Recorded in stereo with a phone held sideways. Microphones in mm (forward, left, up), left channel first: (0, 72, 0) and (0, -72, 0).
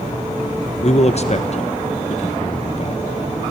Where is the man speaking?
50° left (ahead or behind), 1.0 m.